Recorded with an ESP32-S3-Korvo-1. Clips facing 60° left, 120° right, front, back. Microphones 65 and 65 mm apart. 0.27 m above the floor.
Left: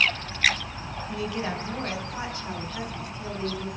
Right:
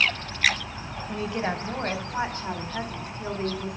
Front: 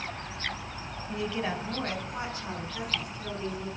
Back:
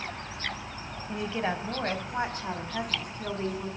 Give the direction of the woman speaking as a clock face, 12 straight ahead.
5 o'clock.